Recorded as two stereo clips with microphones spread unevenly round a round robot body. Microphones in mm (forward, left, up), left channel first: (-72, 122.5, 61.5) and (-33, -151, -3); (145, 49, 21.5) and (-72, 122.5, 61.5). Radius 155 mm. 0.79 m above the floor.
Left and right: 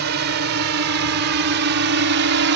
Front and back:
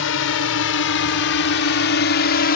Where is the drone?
35° right; by 2.6 s 50° right.